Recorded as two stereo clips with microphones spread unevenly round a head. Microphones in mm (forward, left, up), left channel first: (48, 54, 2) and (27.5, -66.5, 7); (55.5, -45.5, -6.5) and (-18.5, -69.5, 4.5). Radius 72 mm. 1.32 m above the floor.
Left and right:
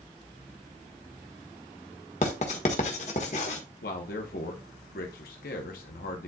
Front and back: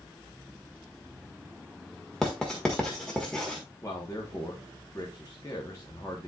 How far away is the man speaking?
About 1.1 m.